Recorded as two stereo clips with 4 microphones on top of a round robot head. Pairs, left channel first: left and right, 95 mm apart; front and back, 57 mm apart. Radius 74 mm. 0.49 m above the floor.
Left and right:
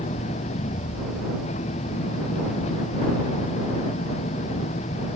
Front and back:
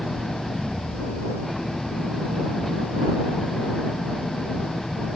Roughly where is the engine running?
Left.